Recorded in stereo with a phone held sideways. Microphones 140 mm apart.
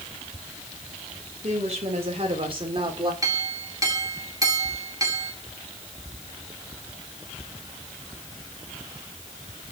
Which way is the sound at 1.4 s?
50° right (ahead or behind).